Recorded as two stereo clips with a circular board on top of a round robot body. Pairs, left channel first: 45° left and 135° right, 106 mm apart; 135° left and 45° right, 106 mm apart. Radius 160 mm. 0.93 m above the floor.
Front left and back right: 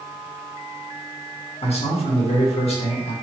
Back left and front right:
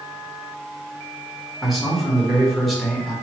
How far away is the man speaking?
About 1.6 m.